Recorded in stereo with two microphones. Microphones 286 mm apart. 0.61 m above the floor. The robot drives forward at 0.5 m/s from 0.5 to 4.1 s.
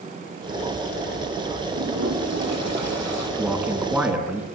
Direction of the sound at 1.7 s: 55° right (ahead or behind).